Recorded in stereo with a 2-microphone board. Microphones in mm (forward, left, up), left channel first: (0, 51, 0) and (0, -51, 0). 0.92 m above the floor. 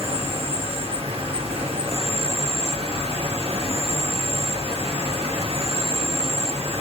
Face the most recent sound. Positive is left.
turn(degrees=-80)